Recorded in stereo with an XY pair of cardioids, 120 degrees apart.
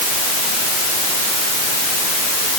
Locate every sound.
Only background noise.